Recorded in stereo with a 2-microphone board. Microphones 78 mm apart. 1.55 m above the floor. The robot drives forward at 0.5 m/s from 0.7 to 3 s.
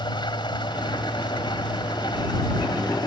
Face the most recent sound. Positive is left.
turn(degrees=70)  # may be behind; listen again after turning